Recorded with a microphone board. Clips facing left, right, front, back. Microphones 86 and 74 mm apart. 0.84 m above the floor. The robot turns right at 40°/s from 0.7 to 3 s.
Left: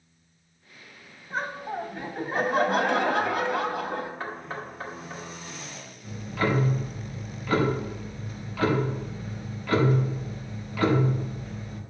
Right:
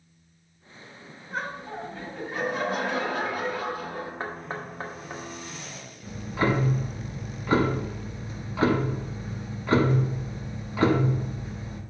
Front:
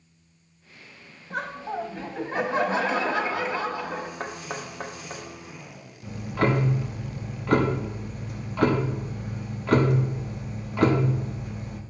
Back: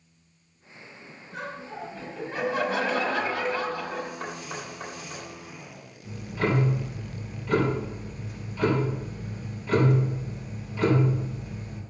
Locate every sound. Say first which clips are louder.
1.3 s laughter: left 2 dB, front 6 dB; straight ahead, 1.2 m; by 4.1 s 65° left, 1.2 m
4.2 s knocking: right 1 dB, front 2 dB; 30° right, 1.1 m
6.0 s ticking: right 1 dB, front 3 dB; 25° right, 0.9 m